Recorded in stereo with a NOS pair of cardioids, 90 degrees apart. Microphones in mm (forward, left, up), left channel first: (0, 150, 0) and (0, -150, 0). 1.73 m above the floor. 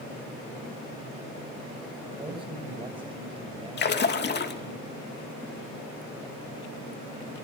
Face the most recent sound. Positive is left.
turn(degrees=35)